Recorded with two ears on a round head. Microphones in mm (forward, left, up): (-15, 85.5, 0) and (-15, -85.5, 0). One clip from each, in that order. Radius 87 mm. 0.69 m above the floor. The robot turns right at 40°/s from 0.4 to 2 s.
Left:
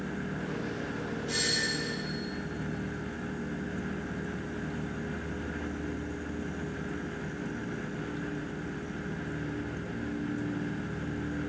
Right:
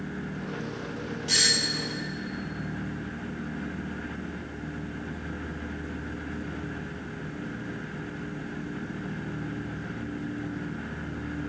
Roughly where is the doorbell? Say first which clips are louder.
Right 7 dB; right.